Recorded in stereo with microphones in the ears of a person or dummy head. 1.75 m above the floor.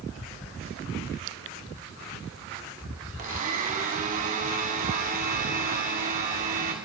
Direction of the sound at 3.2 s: 35° right (ahead or behind).